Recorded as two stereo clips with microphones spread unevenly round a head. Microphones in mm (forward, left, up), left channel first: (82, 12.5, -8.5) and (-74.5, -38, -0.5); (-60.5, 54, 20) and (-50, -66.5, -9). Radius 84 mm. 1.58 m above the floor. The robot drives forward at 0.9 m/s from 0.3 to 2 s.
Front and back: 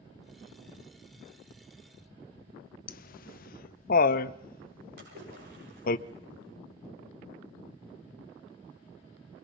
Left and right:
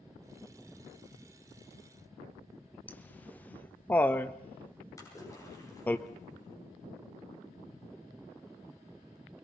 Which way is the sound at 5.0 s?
155° left.